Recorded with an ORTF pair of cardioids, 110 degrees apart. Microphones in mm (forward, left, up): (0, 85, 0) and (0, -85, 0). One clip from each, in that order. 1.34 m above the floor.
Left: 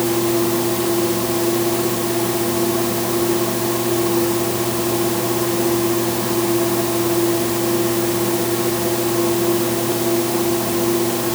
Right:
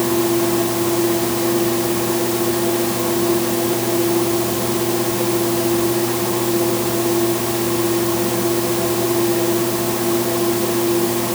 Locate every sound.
Only background noise.